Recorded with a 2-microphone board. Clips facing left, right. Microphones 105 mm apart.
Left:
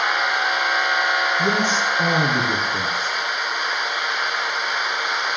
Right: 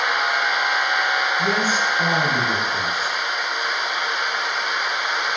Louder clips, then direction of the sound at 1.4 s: Left 1 dB; 20° left (ahead or behind).